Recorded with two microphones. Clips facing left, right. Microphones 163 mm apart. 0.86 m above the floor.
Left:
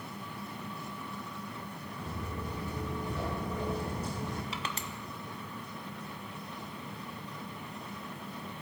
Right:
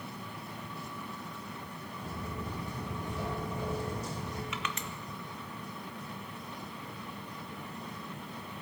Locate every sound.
2.0 s footsteps: 65° left (ahead or behind), 4.5 m; by 4.4 s 50° left (ahead or behind), 2.5 m
4.5 s crushing: 35° left (ahead or behind), 0.6 m